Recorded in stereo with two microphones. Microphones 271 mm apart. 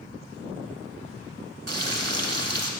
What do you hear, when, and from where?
1.7 s frying: 65° right (ahead or behind), 0.5 m